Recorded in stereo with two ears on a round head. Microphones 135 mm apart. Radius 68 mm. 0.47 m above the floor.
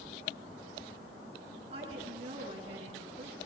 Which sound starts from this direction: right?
A woman speaking, at 1.7 s.